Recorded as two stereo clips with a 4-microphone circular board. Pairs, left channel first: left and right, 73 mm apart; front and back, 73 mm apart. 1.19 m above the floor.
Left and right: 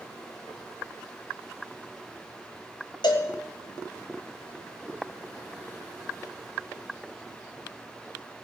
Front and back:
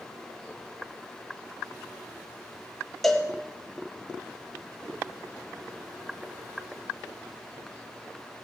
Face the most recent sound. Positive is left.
turn(degrees=85)